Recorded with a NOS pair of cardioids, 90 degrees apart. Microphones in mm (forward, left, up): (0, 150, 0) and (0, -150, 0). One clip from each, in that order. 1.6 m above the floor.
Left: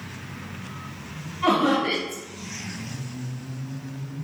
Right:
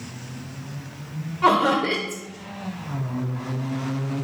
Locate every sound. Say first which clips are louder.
1.4 s laughter: right 3 dB; 60° right, 1.0 m